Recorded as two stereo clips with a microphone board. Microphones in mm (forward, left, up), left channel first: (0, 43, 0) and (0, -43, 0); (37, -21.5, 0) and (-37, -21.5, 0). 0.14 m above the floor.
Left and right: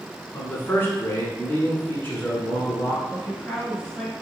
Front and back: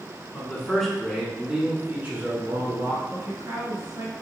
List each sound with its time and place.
0.3 s a man speaking: 55° left, 1.2 m; by 3.0 s 145° left, 1.6 m
3.1 s a woman speaking: 170° left, 1.6 m